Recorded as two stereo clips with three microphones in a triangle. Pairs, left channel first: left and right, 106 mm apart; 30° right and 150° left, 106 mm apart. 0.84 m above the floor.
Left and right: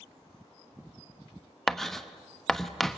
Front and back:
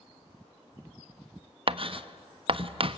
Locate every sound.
1.7 s writing: 175° left, 0.8 m